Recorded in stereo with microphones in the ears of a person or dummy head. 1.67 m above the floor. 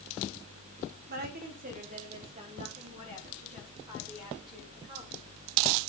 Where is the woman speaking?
45° right (ahead or behind), 1.6 m; by 5.2 s 25° right (ahead or behind), 5.5 m.